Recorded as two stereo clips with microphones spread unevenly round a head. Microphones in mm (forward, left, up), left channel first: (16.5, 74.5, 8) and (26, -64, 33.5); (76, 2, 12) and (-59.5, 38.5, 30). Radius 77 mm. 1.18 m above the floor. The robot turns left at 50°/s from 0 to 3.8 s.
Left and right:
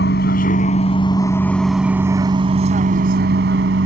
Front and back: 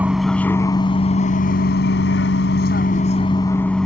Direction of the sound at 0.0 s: 85° left.